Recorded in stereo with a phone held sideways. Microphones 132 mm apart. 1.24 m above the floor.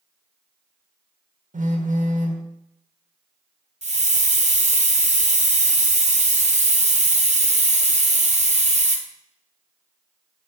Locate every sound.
1.5 s a phone buzzing: 75° right (ahead or behind), 1.1 m
3.8 s a hiss: 60° right (ahead or behind), 1.0 m